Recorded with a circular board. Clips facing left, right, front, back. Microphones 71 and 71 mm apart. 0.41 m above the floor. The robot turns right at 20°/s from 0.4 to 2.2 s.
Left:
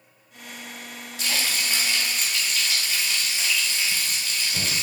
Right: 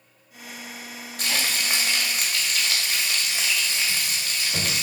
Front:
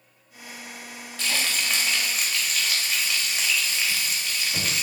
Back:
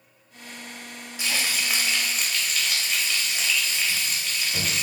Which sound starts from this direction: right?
Frying, at 1.2 s.